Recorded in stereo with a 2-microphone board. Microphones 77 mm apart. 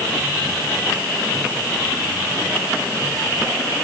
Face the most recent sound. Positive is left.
No sound to turn to.